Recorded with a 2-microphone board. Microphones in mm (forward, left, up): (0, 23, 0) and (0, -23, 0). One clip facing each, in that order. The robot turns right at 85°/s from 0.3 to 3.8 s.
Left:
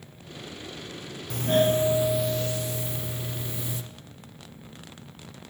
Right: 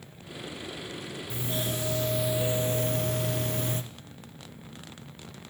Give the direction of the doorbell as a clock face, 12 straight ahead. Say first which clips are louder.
Left 12 dB; 9 o'clock.